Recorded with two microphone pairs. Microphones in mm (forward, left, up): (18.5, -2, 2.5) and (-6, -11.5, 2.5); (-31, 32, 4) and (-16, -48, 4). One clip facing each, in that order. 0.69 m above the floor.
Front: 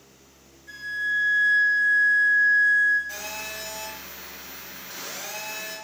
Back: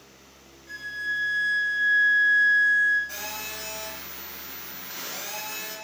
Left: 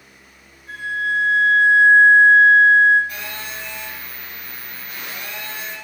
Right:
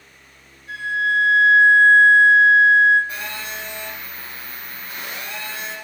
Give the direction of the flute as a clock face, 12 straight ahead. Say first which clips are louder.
Front 3 dB, right 2 dB; 8 o'clock.